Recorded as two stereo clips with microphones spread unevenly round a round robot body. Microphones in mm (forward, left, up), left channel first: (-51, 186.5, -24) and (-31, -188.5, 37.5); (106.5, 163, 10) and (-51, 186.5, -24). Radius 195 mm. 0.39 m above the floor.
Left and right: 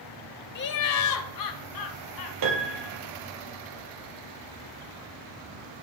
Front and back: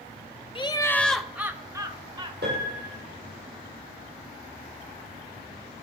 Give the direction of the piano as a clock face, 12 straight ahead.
4 o'clock.